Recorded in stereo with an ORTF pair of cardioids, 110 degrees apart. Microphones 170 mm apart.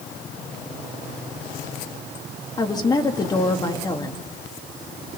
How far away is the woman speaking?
About 2.5 m.